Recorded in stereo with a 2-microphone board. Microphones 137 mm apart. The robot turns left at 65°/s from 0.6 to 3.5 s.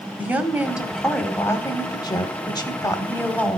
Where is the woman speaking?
160° right, 1.0 m; by 3.6 s 15° left, 1.0 m.